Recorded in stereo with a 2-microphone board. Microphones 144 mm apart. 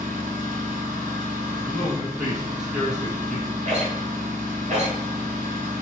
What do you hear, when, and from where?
0.0 s an engine running: 75° right (ahead or behind), 1.0 m
1.6 s a man speaking: 5° right (ahead or behind), 1.0 m
3.6 s a rattle: 55° right (ahead or behind), 1.2 m